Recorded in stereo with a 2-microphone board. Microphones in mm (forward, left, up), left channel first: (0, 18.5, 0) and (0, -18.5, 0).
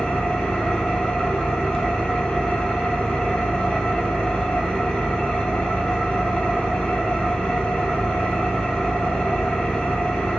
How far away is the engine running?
About 1.1 m.